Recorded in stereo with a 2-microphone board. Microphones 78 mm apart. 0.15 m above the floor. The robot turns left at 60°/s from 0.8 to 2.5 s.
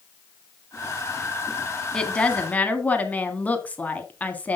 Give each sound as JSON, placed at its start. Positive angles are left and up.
{"t": 1.9, "sound": "a woman speaking", "side_deg": 10, "distance_m": 1.3}